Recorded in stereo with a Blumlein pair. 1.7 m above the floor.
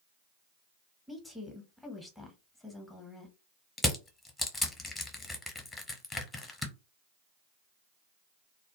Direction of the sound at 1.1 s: 5° left.